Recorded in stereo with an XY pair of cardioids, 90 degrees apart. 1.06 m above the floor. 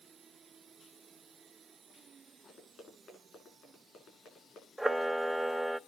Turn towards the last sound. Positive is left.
turn(degrees=-10)